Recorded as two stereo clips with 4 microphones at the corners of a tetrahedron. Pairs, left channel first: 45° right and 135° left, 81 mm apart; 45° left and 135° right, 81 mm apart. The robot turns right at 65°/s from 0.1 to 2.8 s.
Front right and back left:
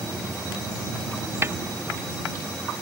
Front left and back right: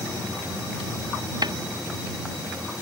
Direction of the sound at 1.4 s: 165° right.